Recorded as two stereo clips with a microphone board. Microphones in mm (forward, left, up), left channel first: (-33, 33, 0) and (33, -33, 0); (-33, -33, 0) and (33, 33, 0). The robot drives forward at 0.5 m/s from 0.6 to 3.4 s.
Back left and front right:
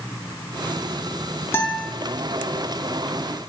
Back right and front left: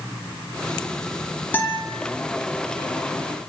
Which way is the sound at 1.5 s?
170° left.